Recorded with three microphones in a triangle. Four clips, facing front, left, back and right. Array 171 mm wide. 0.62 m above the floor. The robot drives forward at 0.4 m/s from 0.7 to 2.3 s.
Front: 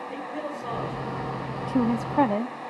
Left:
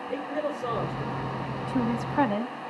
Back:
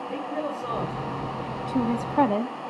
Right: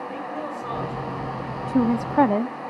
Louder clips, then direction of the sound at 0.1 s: Left 1 dB, back 5 dB; 105° left.